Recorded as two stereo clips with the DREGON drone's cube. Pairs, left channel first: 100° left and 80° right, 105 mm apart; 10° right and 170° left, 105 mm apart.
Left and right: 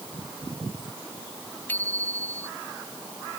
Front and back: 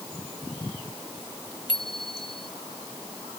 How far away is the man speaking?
No man speaking in this recording.